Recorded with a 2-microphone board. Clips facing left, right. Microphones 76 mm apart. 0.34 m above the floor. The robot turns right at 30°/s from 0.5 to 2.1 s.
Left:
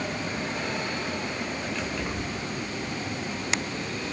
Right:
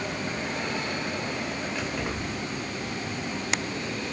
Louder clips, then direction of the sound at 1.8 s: Even; 10° right (ahead or behind).